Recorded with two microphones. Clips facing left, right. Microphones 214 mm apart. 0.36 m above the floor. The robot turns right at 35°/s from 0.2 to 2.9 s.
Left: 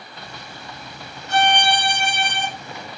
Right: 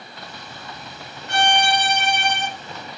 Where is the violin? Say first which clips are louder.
Left 1 dB; 75° right, 1.8 m; by 2.5 s 35° right, 1.8 m.